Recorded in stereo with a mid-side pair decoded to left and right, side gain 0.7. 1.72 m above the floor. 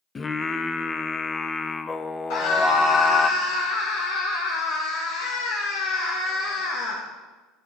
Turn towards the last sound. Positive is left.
turn(degrees=65)